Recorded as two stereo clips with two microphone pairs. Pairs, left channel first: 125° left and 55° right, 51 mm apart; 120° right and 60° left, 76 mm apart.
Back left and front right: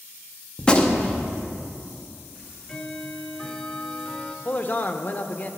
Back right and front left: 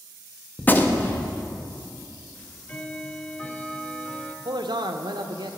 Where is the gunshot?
175° right, 0.6 m.